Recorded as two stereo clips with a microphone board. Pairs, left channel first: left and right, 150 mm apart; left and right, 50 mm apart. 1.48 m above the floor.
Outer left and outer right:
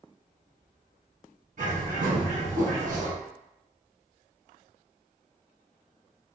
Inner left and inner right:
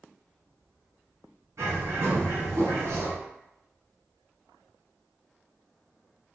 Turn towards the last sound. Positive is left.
turn(degrees=-65)  # may be behind; listen again after turning